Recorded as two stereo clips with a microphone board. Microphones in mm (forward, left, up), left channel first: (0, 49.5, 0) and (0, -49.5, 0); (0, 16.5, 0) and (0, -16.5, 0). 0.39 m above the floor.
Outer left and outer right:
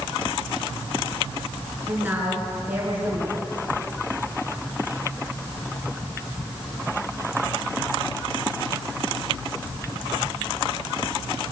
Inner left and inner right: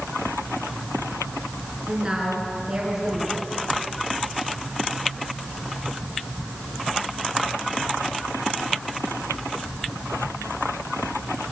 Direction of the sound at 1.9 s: 20° right (ahead or behind).